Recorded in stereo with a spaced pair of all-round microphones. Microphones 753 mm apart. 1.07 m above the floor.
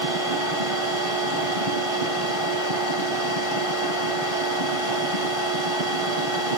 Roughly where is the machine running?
Right.